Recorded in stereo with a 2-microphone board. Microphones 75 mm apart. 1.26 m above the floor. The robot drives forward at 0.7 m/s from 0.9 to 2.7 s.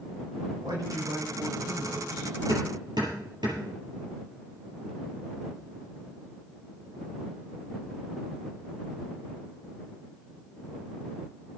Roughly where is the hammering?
Right.